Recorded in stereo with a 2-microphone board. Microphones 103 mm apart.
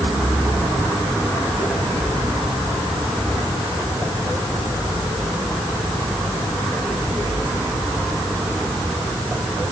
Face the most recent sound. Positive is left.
No sound to turn to.